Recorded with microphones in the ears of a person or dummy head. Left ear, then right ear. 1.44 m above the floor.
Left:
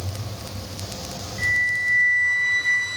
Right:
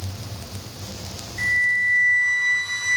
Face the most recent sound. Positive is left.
turn(degrees=-85)